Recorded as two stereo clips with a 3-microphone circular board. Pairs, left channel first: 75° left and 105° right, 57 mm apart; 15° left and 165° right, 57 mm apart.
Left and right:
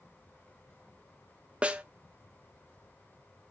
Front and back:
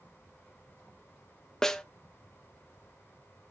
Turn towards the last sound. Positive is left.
turn(degrees=-55)